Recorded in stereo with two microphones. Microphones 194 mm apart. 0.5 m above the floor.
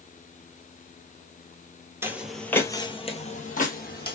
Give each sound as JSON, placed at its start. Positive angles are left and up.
{"t": 2.0, "sound": "footsteps", "side_deg": -15, "distance_m": 0.8}